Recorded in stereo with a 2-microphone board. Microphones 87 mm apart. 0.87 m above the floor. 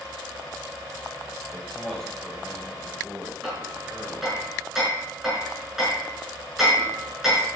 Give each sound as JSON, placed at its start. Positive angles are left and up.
{"t": 1.5, "sound": "a man speaking", "side_deg": 20, "distance_m": 3.5}
{"t": 3.4, "sound": "hammering", "side_deg": -5, "distance_m": 5.5}